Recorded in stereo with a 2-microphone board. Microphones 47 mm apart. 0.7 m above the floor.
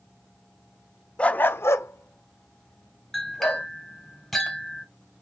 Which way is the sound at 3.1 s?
5° left (ahead or behind).